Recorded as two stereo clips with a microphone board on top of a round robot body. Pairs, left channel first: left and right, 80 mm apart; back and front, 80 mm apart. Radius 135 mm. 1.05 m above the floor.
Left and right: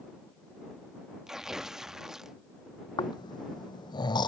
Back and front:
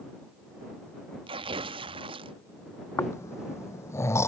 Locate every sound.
1.3 s tearing paper: 5° right
3.0 s snoring: 125° left